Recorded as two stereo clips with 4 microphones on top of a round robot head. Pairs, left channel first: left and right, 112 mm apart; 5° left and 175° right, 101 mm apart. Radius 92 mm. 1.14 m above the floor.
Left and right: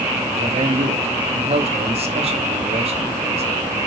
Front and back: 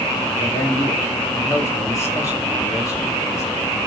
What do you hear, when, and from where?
0.4 s a man speaking: 60° right, 3 m